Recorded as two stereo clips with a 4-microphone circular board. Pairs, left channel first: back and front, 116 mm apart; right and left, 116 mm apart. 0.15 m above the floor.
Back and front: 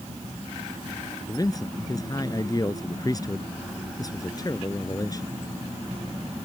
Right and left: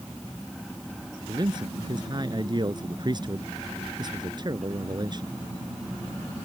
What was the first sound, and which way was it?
A man speaking, 130° left.